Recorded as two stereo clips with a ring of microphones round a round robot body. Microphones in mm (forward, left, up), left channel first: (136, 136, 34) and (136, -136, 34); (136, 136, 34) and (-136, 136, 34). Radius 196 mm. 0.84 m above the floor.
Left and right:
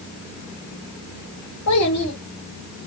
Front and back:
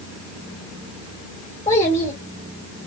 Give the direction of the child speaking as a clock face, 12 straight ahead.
10 o'clock.